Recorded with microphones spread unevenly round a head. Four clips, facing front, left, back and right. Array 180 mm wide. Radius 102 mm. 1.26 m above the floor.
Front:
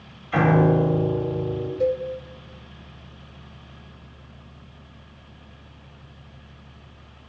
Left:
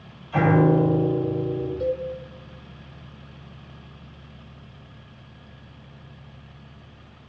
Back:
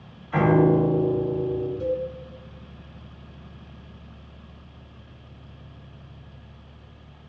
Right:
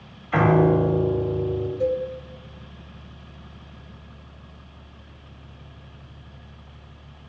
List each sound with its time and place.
0.3 s a piano: 45° right, 2.5 m
1.8 s a cowbell: 15° right, 0.9 m